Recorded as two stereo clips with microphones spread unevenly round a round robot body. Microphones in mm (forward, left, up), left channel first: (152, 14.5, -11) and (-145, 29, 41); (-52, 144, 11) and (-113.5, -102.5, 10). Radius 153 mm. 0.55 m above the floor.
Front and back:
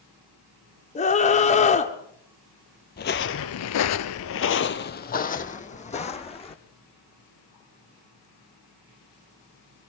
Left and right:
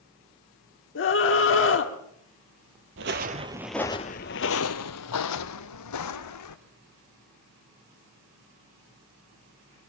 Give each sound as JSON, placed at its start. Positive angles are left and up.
{"t": 0.9, "sound": "a scream", "azimuth_deg": 50, "distance_m": 1.2}
{"t": 3.0, "sound": "footsteps", "azimuth_deg": -65, "distance_m": 0.8}